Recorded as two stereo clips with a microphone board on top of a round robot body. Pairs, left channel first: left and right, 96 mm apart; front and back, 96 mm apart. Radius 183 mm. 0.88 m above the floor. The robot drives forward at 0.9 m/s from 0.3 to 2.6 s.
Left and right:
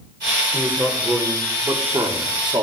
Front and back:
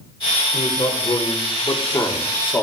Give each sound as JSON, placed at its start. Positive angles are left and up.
{"t": 0.5, "sound": "a man speaking", "azimuth_deg": -25, "distance_m": 2.5}